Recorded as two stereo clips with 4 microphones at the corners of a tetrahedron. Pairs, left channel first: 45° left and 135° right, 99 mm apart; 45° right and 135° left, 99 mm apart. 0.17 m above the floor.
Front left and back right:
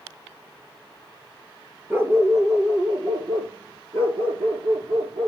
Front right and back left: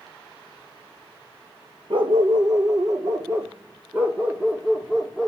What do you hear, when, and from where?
1.9 s a dog barking: 160° left, 1.1 m; by 5.3 s 135° right, 1.9 m